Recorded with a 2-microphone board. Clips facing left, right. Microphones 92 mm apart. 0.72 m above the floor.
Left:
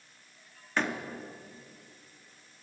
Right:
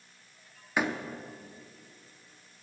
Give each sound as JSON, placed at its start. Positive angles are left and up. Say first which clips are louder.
{"t": 0.8, "sound": "a door slam", "louder": "right 1 dB", "side_deg": -10, "distance_m": 1.0}